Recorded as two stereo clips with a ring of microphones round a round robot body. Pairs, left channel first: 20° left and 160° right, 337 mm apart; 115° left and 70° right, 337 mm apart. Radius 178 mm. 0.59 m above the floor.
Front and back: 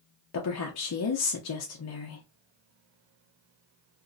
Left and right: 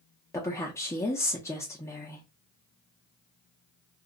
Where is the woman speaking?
35° left, 0.7 m.